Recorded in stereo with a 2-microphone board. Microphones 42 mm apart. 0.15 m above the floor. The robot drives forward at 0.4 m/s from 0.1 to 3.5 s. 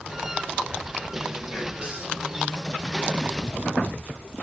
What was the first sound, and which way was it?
Whispering, 25° right (ahead or behind).